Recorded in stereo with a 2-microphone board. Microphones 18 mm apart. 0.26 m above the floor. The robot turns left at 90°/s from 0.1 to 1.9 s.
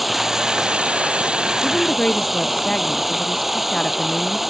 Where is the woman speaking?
70° left (ahead or behind); by 4.4 s 45° left (ahead or behind).